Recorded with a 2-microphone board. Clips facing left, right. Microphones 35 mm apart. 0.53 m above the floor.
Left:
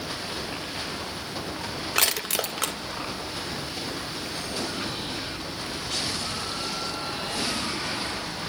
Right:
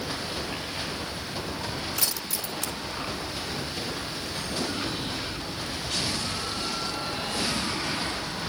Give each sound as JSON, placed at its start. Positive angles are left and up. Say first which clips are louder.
{"t": 1.9, "sound": "crushing", "louder": "left 6 dB", "side_deg": 70, "distance_m": 1.6}